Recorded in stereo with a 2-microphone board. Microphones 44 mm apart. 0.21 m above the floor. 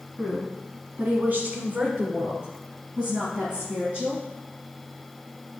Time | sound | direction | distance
0.2 | a woman speaking | 25° right (ahead or behind) | 1.2 m